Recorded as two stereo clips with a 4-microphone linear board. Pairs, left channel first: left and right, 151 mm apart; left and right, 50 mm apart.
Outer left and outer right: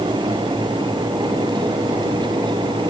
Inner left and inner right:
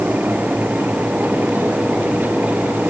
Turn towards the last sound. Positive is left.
No sound to turn to.